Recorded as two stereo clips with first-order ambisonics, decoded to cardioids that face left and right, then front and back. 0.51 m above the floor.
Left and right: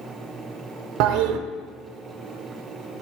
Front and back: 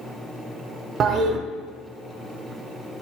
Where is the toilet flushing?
120° right, 0.5 m.